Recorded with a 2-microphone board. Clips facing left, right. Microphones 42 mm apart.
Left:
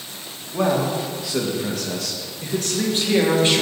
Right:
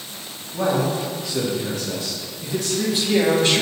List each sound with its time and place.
0.5 s a man speaking: 80° left, 1.9 m; by 3.6 s 20° left (ahead or behind), 1.4 m